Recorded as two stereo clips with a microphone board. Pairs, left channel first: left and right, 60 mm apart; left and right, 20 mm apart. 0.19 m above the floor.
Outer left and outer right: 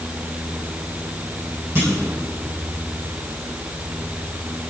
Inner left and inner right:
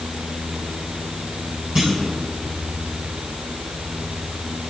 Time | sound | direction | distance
1.8 | a clunk | 45° right (ahead or behind) | 5 m